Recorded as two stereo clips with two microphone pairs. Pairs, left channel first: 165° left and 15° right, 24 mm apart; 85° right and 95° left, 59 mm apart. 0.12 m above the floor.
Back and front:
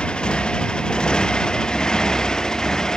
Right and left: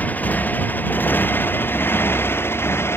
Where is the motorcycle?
150° right; by 3.0 s 130° right.